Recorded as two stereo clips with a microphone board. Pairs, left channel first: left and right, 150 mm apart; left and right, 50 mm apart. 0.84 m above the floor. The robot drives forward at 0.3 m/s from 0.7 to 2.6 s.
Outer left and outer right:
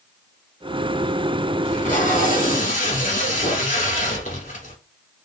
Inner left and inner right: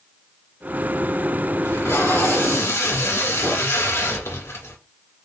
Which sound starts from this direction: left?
Tape being pulled, at 1.6 s.